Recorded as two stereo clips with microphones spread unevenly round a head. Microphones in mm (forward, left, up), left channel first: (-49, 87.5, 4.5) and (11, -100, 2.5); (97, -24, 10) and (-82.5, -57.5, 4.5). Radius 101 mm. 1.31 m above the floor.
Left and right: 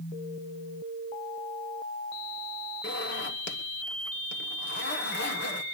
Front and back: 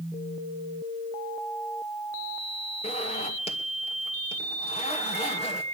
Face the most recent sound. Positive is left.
turn(degrees=70)